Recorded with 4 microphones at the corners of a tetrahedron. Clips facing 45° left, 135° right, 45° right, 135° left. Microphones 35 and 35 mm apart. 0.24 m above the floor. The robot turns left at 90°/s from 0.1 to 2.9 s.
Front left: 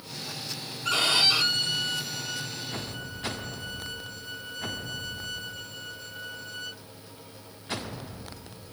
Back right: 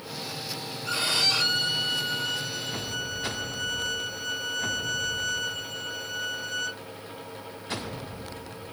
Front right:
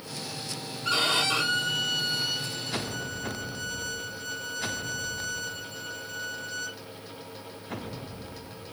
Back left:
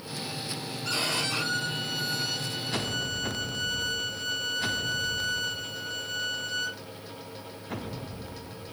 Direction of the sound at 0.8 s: 15° left.